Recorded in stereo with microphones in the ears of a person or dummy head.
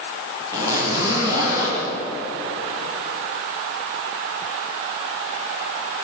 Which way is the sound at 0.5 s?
25° right (ahead or behind).